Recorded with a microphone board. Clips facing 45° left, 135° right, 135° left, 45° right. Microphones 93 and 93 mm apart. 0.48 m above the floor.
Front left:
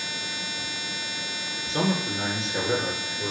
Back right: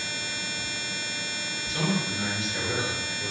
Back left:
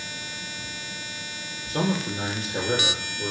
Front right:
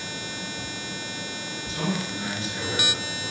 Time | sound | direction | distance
1.7 | a man speaking | 100° left | 9 m